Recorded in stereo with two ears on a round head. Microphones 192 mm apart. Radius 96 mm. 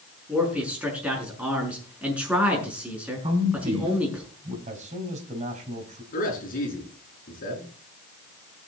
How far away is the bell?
I don't hear a bell.